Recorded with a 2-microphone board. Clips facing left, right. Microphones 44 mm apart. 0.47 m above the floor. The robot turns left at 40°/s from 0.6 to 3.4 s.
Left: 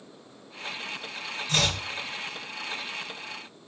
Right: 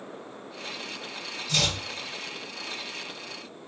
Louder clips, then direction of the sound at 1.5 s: Left 1 dB; 50° left (ahead or behind).